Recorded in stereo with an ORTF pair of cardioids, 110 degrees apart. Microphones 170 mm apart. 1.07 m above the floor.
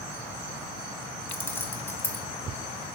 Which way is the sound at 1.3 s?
15° left.